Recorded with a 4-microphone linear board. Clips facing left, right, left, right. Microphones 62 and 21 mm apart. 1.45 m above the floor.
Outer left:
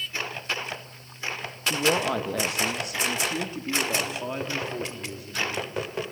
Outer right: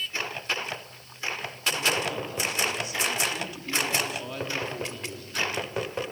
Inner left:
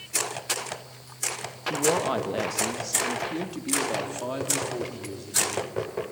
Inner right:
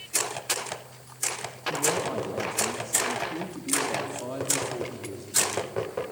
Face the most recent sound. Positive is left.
turn(degrees=10)  # may be behind; listen again after turning